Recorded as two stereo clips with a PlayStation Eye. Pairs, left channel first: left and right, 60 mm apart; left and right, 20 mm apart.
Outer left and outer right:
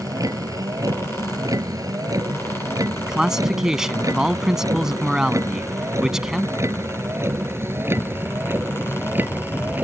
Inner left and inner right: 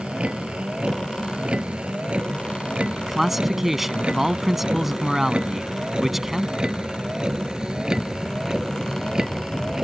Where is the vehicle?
75° right (ahead or behind); by 9.8 s 35° right (ahead or behind).